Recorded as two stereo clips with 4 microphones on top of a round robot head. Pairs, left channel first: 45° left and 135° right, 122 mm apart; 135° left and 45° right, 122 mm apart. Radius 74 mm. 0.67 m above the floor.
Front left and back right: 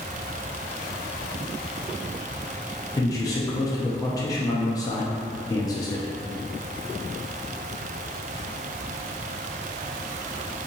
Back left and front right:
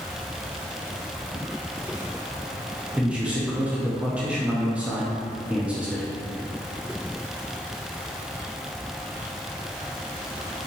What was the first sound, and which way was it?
A man speaking, 25° left.